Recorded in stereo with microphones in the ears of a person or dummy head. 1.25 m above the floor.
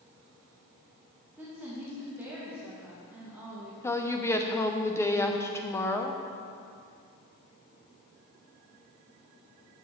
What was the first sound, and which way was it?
A woman speaking, 10° right (ahead or behind).